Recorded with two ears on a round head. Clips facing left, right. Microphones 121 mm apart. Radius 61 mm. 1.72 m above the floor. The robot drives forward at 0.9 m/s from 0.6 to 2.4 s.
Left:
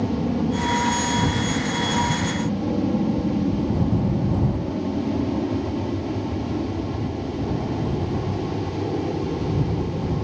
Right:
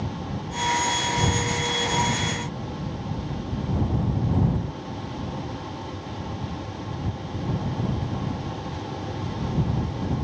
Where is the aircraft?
65° left (ahead or behind); by 10.2 s 50° left (ahead or behind).